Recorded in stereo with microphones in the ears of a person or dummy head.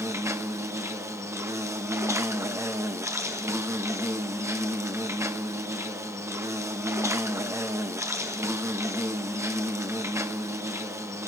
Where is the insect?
15° right (ahead or behind), 0.8 m.